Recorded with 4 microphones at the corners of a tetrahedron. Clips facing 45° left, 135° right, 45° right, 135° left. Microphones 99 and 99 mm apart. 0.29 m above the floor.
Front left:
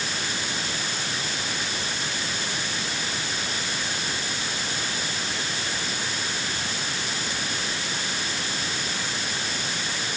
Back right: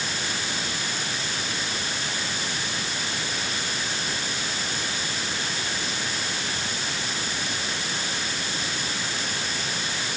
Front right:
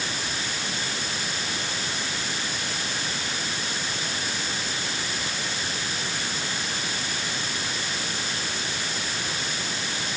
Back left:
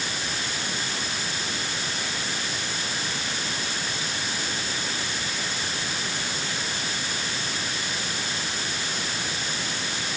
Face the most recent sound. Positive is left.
No sound to turn to.